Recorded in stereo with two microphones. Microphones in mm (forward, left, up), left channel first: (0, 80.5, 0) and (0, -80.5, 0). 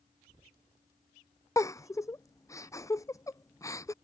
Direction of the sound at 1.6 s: 20° left (ahead or behind).